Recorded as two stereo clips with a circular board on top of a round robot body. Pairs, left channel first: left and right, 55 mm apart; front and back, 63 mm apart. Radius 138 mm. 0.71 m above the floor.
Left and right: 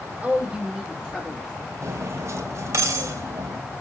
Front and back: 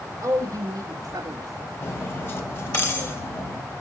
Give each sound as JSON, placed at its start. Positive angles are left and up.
{"t": 0.2, "sound": "a woman speaking", "azimuth_deg": -160, "distance_m": 2.0}
{"t": 1.8, "sound": "cutlery clinking", "azimuth_deg": -55, "distance_m": 2.5}